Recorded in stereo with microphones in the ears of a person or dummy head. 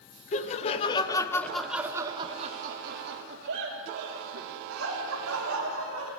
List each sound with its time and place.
0.3 s laughter: 30° left (ahead or behind), 1.1 m; by 6.1 s 85° right, 2.5 m